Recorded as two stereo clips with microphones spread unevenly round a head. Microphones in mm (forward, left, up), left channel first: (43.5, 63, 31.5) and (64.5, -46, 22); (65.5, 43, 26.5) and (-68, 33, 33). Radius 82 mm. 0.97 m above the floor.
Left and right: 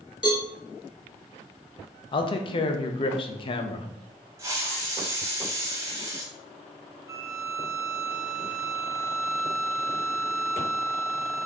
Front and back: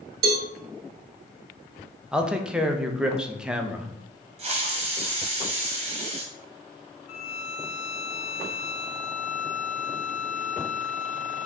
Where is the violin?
15° right, 0.7 m.